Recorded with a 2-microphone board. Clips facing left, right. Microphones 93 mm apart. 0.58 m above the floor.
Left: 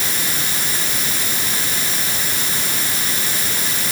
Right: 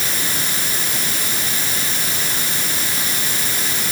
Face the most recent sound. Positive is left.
No sound to turn to.